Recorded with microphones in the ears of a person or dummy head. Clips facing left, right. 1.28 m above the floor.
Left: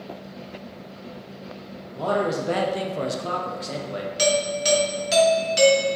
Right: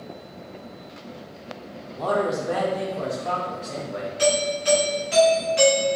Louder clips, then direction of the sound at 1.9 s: Even; 10° left (ahead or behind).